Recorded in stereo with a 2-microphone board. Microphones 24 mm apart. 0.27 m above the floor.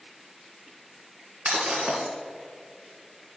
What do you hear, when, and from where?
1.4 s breaking glass: 70° right (ahead or behind), 1.6 m